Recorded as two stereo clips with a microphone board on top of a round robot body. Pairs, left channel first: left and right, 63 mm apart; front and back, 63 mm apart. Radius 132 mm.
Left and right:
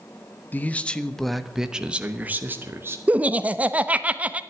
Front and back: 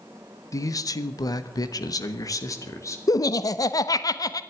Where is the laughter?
20° right, 1.1 m.